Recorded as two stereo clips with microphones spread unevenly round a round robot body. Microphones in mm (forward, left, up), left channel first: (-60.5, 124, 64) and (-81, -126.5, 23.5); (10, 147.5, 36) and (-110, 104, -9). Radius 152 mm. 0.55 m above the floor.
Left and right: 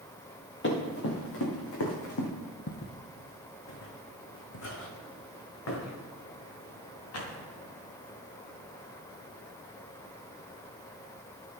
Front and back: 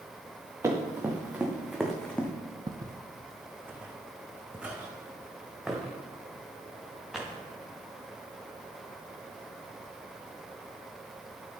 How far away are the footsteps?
About 1.2 m.